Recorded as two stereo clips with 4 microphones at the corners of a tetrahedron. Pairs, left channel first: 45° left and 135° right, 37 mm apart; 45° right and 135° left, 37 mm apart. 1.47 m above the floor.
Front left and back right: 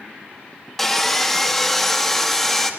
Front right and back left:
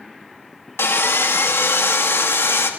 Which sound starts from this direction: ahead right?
Sawing, at 0.8 s.